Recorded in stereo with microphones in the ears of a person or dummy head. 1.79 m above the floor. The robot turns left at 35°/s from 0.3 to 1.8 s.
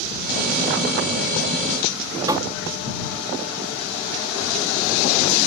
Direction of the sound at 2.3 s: 20° right (ahead or behind).